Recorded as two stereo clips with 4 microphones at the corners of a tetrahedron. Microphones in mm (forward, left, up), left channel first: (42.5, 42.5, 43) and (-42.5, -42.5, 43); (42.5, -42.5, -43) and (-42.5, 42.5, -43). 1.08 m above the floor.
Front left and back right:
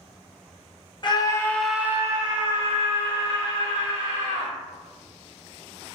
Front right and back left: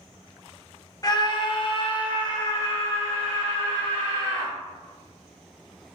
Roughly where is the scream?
Ahead.